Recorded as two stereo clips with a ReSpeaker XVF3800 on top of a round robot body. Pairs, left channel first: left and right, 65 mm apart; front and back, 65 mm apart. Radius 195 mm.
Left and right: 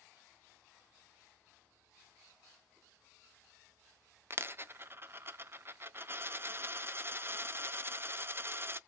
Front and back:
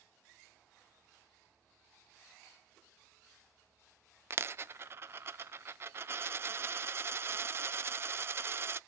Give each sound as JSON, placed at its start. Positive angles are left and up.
{"t": 4.3, "sound": "a dropped coin", "azimuth_deg": -130, "distance_m": 0.5}